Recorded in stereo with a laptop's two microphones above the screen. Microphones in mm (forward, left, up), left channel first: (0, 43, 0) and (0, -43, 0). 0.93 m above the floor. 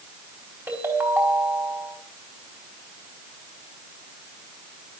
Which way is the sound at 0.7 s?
25° right (ahead or behind).